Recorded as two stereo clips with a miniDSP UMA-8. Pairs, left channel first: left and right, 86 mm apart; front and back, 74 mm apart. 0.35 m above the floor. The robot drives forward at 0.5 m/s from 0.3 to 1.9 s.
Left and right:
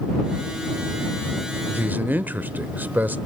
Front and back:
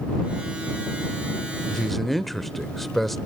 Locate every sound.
1.7 s a man speaking: 70° right, 0.9 m; by 3.2 s 85° right, 0.9 m